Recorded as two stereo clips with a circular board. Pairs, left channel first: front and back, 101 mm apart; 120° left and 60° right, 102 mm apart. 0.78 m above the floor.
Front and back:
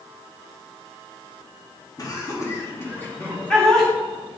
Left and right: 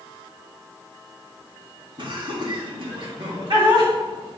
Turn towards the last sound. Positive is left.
turn(degrees=-85)